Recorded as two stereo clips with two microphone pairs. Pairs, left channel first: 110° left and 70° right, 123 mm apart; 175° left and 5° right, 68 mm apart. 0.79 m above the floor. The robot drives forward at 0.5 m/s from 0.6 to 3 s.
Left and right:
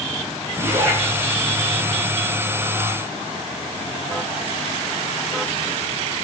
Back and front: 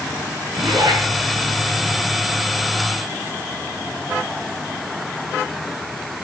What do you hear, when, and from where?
0.5 s a zipper: 15° right, 7 m